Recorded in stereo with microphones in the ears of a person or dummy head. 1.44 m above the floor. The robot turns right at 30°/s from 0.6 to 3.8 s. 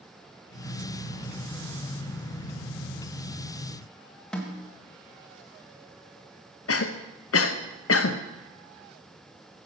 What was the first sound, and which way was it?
A snare drum, 5° left (ahead or behind).